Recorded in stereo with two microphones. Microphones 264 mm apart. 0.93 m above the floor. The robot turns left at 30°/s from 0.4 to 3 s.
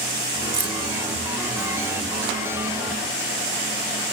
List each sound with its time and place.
0.5 s keys jangling: 70° right (ahead or behind), 1.4 m; by 0.8 s 75° right (ahead or behind), 1.4 m